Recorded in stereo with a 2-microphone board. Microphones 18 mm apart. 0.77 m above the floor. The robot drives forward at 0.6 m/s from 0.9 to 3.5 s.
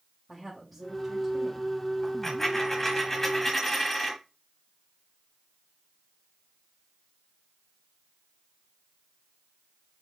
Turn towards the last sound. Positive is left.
turn(degrees=10)  # may be behind; listen again after turning